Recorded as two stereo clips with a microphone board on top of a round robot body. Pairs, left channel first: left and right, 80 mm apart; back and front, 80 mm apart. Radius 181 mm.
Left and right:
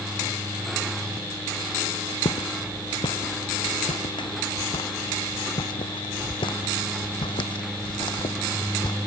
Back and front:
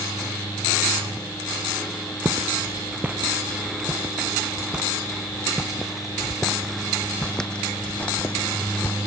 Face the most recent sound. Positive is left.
turn(degrees=115)